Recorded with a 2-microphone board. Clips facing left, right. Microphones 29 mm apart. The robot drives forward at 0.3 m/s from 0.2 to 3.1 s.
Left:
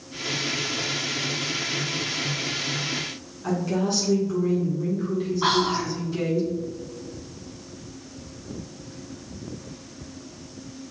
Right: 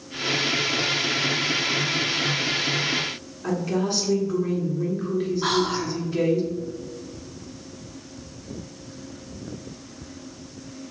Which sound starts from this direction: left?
Whispering, at 5.4 s.